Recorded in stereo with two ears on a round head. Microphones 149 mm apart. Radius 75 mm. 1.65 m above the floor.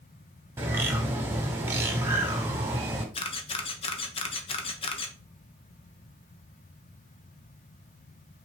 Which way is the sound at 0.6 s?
15° right (ahead or behind).